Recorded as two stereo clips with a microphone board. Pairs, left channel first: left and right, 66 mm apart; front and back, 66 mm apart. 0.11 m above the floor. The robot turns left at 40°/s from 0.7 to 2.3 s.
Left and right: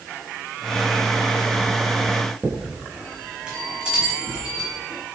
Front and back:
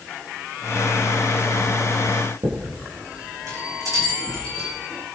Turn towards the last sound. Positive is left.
turn(degrees=-165)